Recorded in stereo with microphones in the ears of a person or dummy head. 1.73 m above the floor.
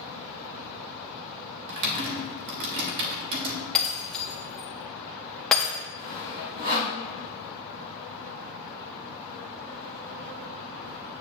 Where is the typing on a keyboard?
50° right (ahead or behind), 1.1 m.